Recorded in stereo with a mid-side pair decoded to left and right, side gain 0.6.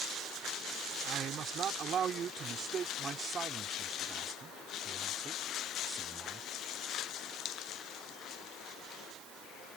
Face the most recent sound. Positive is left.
turn(degrees=-15)